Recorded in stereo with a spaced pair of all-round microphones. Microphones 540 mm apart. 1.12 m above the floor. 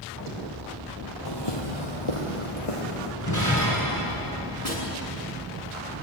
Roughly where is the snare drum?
Left.